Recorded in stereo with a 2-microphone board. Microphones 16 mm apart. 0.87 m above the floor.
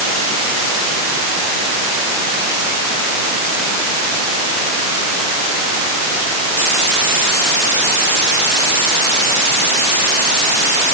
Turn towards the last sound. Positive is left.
No sound to turn to.